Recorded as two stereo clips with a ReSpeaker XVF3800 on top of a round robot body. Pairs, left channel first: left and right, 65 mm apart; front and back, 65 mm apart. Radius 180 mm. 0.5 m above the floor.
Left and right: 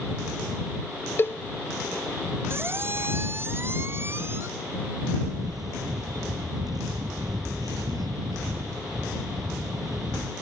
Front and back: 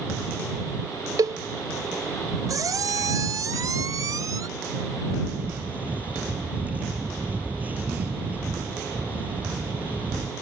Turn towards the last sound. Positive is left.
turn(degrees=-115)